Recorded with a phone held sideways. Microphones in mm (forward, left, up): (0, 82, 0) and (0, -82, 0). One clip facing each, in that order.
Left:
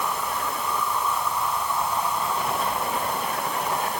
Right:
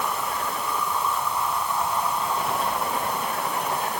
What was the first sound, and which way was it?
Only background noise.